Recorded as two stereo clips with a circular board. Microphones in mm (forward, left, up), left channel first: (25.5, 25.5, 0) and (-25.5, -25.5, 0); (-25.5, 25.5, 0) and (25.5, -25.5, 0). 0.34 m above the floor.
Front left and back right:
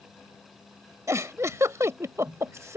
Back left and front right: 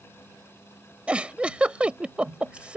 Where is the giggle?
115° right.